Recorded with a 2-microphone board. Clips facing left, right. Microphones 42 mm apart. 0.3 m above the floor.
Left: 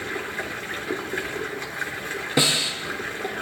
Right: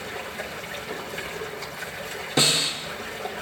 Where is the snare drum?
25° left (ahead or behind), 4.5 m.